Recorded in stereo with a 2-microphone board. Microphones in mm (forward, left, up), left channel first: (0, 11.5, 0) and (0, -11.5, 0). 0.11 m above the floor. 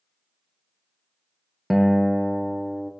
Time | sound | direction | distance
1.7 | a guitar | 15° right (ahead or behind) | 0.5 m